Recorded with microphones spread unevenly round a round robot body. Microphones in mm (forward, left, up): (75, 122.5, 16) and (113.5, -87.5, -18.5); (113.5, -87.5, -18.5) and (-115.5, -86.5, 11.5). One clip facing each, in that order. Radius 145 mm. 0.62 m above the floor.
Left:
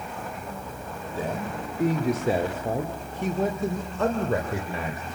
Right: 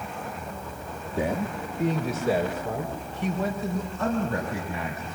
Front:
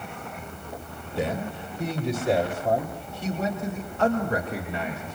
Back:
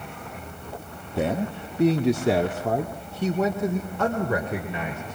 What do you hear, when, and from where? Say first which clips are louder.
1.2 s a man speaking: right 4 dB, back 3 dB; 145° right, 1.7 m; by 5.2 s 150° left, 3.5 m